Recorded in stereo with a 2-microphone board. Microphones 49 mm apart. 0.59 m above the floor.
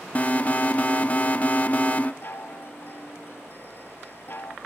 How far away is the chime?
About 0.5 m.